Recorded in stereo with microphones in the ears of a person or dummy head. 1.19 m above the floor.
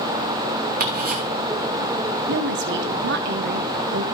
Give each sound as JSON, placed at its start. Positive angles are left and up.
{"t": 0.8, "sound": "ticking", "side_deg": -45, "distance_m": 2.5}
{"t": 2.3, "sound": "a woman speaking", "side_deg": -60, "distance_m": 1.5}